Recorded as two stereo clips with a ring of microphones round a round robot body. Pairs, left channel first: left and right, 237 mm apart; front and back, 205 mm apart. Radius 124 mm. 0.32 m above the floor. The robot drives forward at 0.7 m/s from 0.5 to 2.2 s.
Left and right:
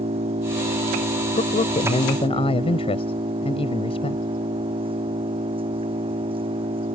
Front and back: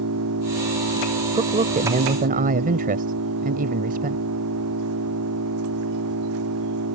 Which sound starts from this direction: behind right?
An engine running, at 0.0 s.